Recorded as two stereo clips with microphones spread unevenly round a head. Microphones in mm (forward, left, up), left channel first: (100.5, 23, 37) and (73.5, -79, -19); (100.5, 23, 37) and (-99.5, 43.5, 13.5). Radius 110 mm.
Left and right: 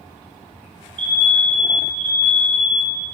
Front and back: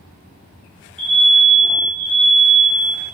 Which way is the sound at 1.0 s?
95° right.